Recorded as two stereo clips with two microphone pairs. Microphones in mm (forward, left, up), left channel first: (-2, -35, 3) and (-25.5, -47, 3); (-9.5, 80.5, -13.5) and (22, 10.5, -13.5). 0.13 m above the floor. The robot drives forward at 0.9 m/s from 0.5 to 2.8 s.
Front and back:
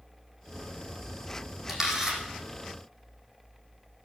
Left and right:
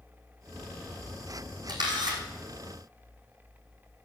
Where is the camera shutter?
85° right, 5.5 m; by 2.2 s 90° right, 5.5 m.